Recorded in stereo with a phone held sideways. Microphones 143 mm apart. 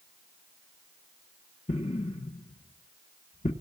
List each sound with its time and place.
1.7 s an explosion: 50° left (ahead or behind), 1.4 m